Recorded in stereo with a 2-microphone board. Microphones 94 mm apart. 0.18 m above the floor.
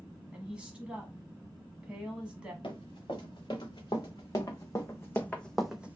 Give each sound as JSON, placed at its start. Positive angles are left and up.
{"t": 0.3, "sound": "a woman speaking", "side_deg": -10, "distance_m": 1.1}
{"t": 2.6, "sound": "running footsteps", "side_deg": 60, "distance_m": 1.8}